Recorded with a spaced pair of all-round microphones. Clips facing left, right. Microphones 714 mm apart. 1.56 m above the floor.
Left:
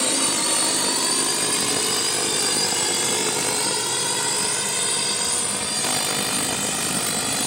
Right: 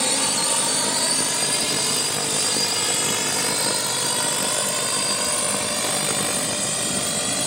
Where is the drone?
25° right (ahead or behind); by 7.5 s 5° right (ahead or behind).